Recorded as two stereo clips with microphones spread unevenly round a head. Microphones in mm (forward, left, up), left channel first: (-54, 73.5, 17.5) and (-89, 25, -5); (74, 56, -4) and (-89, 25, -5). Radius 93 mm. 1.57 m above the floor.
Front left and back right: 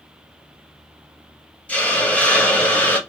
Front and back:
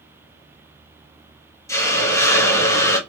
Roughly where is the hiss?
Left.